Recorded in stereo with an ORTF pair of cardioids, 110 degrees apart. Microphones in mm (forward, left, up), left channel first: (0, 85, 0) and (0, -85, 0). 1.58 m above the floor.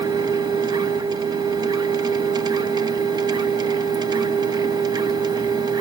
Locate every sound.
0.0 s a machine running: 25° right, 0.7 m